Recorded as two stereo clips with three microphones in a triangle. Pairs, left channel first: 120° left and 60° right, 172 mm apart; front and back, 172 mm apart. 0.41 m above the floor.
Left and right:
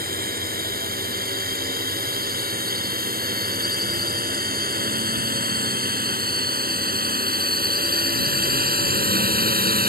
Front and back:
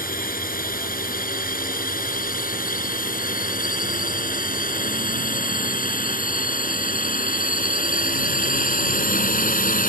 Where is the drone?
30° right; by 9.9 s 35° right.